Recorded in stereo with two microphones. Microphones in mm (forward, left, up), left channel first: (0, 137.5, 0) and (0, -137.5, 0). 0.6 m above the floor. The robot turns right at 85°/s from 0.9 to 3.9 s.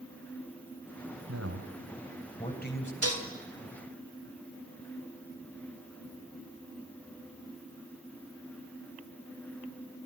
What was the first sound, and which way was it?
A man speaking, 70° right (ahead or behind).